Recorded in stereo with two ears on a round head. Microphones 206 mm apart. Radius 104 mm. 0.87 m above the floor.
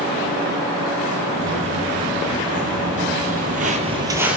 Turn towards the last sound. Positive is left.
turn(degrees=-5)  # may be behind; listen again after turning